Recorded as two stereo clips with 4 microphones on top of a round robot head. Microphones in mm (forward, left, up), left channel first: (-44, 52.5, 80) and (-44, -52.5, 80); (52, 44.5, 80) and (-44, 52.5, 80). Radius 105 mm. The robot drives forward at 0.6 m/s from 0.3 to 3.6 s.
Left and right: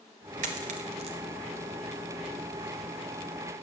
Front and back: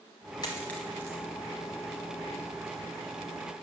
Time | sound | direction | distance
0.4 | a dropped coin | 70° right | 0.6 m